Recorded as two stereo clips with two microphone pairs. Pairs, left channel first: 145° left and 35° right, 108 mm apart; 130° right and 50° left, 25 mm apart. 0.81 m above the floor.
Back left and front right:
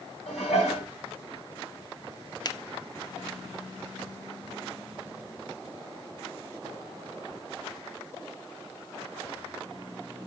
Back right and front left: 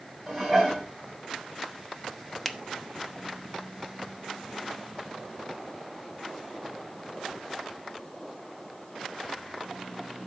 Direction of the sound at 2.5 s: 160° left.